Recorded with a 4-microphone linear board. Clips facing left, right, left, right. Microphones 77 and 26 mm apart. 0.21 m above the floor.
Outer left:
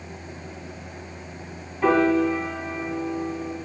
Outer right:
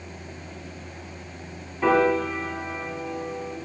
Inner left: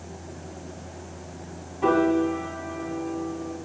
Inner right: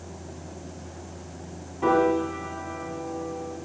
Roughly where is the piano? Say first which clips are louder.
Outer left 1 dB, inner left 1 dB; centre.